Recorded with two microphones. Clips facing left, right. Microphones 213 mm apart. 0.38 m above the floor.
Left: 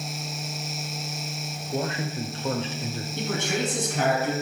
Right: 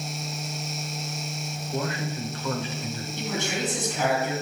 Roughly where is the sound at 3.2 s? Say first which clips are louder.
Left 2 dB; left.